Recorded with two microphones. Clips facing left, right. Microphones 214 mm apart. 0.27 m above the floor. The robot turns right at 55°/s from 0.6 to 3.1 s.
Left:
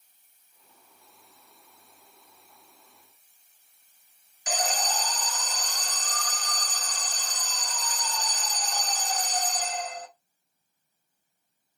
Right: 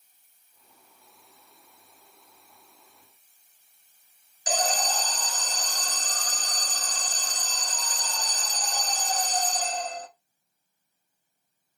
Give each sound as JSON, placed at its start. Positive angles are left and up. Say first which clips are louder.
{"t": 4.5, "sound": "an alarm", "louder": "right 2 dB", "side_deg": -35, "distance_m": 0.7}